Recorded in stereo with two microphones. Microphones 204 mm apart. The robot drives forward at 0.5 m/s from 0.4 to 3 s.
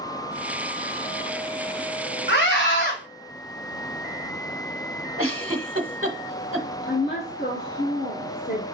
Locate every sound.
2.3 s a scream: 60° left (ahead or behind), 2.5 m; by 3.0 s 55° left (ahead or behind), 3 m
5.2 s a giggle: 85° right, 1.0 m
6.8 s a woman speaking: 50° left (ahead or behind), 1.4 m